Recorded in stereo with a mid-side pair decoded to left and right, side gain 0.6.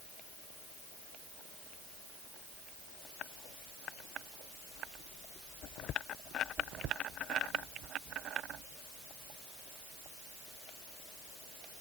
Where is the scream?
No scream in this recording.